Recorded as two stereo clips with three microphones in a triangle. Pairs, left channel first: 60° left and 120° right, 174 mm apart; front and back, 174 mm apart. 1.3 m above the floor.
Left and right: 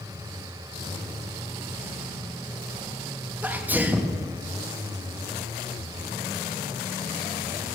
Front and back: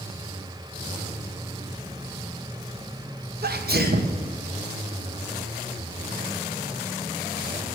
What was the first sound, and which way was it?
A sneeze, 160° left.